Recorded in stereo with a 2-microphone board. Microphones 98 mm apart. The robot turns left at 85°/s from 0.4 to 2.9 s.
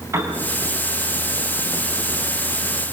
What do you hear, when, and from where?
0.1 s a piano: 30° right (ahead or behind), 3.5 m